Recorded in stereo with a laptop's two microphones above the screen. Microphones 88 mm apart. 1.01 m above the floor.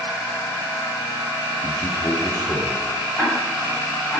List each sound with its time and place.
1.6 s a man speaking: 45° left (ahead or behind), 2.5 m; by 2.9 s 25° left (ahead or behind), 3.5 m
3.2 s ticking: 5° left (ahead or behind), 7.5 m